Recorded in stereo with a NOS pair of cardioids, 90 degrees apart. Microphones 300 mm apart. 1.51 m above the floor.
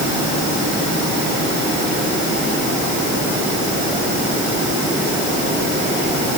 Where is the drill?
No drill in this recording.